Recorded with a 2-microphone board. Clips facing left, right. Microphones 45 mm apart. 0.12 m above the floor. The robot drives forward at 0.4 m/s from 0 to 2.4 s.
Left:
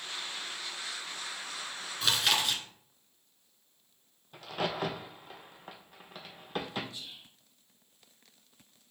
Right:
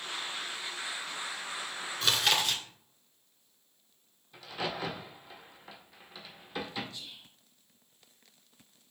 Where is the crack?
55° left (ahead or behind), 0.8 m.